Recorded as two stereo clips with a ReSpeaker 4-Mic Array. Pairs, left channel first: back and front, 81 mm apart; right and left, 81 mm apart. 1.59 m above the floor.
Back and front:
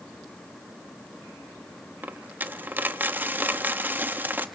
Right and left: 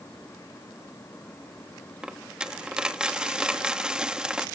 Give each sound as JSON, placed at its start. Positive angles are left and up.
{"t": 2.0, "sound": "a dropped coin", "azimuth_deg": 25, "distance_m": 1.0}